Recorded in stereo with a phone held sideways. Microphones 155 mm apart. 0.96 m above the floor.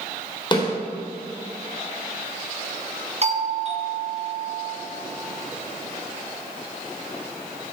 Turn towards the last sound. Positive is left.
turn(degrees=-45)  # may be behind; listen again after turning